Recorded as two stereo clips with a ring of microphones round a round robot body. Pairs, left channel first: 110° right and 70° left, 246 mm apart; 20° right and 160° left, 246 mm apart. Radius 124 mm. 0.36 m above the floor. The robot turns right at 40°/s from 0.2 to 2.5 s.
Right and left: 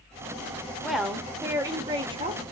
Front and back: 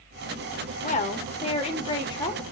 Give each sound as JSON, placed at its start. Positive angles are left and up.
{"t": 0.8, "sound": "a woman speaking", "azimuth_deg": -25, "distance_m": 0.9}